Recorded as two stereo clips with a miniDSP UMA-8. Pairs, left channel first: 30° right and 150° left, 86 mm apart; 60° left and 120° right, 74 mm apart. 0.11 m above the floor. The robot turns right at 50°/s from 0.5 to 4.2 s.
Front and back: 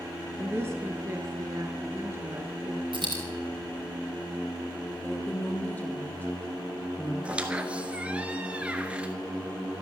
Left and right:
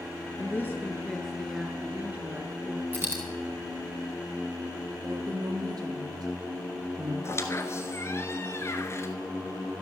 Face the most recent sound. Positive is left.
turn(degrees=80)